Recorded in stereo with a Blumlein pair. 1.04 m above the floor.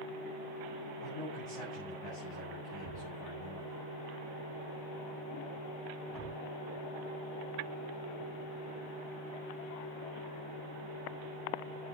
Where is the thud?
35° right, 3.5 m.